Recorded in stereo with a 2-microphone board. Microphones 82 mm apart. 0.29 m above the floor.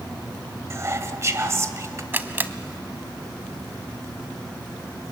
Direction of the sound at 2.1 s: 25° right (ahead or behind).